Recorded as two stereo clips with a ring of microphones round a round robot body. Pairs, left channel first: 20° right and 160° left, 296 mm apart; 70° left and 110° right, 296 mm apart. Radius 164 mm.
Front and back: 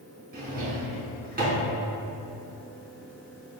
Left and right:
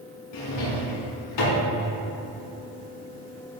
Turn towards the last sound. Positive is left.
turn(degrees=95)